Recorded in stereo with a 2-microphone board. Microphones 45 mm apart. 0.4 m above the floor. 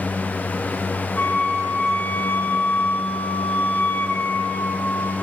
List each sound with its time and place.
1.2 s a flute: 50° left (ahead or behind), 4 m